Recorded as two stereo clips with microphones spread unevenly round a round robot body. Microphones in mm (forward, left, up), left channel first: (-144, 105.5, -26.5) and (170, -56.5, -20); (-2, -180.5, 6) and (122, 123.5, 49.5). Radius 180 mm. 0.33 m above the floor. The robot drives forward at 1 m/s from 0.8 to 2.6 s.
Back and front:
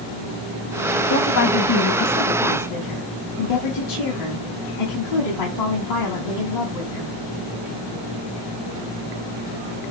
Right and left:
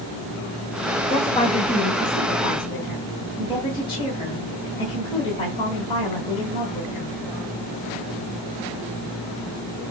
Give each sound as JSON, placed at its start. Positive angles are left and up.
{"t": 1.1, "sound": "a woman speaking", "azimuth_deg": 170, "distance_m": 1.8}